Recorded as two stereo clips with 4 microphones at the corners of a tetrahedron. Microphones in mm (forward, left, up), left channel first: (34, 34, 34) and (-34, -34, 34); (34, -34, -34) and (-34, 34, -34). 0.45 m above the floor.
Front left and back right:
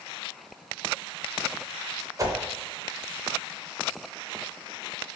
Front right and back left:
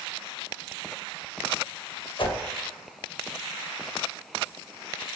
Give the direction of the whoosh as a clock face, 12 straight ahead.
3 o'clock.